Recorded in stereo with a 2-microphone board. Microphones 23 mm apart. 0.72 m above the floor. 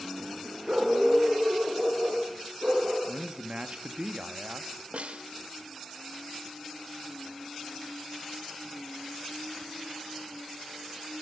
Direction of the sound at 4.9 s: 80° right.